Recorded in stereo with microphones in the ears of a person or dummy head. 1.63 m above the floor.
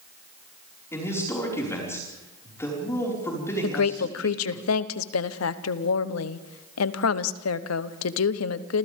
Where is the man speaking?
15° left (ahead or behind), 5.5 m.